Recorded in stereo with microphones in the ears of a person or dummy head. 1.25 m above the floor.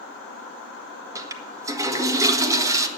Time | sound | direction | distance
1.1 | a toilet flushing | 15° right (ahead or behind) | 1.5 m